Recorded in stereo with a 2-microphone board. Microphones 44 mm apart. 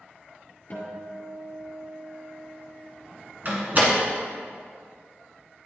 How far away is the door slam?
About 1.3 m.